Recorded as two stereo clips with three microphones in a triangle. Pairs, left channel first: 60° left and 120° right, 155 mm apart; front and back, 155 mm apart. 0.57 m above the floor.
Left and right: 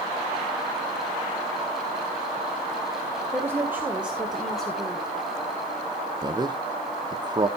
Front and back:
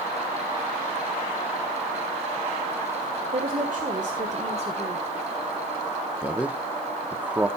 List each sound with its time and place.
3.3 s a woman speaking: 170° left, 1.8 m; by 5.0 s 135° left, 1.5 m
6.2 s a man speaking: 110° right, 0.6 m